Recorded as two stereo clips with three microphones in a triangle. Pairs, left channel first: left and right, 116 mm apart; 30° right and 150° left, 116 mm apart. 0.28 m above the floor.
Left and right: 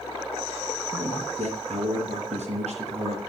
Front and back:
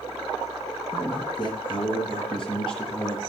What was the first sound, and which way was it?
A man speaking, 75° right.